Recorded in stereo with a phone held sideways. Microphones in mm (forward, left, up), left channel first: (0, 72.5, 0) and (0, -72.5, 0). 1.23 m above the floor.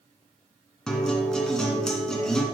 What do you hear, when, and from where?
0.9 s a guitar: 5° left (ahead or behind), 2 m